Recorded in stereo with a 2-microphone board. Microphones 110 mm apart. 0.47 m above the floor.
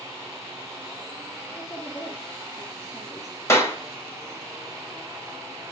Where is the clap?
25° left (ahead or behind), 2.5 m.